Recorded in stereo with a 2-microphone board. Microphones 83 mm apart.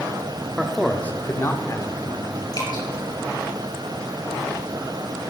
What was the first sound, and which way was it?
A man speaking, 10° right (ahead or behind).